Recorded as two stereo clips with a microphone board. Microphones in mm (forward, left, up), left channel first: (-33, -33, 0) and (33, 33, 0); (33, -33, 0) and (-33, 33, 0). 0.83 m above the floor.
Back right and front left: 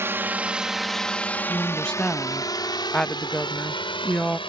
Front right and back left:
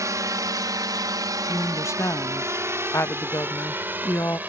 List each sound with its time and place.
0.0 s a drone: 100° left; by 4.5 s 155° right
1.5 s a woman speaking: 60° right